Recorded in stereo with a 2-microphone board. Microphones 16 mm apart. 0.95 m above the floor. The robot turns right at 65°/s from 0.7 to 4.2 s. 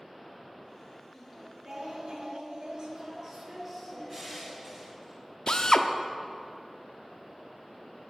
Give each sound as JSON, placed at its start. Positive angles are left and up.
{"t": 1.1, "sound": "singing", "azimuth_deg": 170, "distance_m": 2.0}
{"t": 4.1, "sound": "crushing", "side_deg": -5, "distance_m": 3.0}
{"t": 5.5, "sound": "a drill", "side_deg": 55, "distance_m": 0.7}